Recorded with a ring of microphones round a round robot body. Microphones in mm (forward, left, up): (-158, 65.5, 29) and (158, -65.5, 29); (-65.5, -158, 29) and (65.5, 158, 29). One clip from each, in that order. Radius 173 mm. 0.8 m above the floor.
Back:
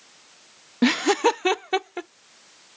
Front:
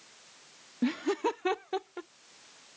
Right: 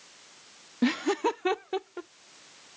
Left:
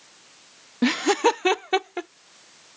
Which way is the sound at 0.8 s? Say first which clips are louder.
Back 11 dB, left 7 dB; 145° left.